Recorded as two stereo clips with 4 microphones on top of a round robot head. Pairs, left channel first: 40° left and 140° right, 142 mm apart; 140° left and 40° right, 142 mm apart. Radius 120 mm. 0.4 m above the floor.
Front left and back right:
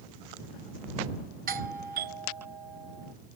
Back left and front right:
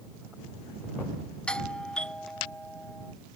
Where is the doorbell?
140° right.